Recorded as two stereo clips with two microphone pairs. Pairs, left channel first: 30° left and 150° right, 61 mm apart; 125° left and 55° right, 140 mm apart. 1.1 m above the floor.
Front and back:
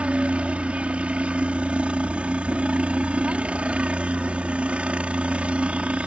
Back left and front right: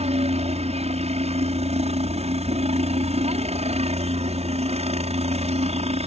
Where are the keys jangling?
I don't hear keys jangling.